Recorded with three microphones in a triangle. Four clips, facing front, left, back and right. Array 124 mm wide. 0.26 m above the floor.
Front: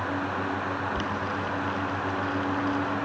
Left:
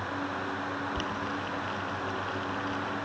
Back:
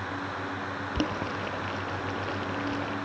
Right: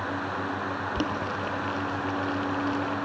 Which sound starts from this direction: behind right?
Boiling, at 0.9 s.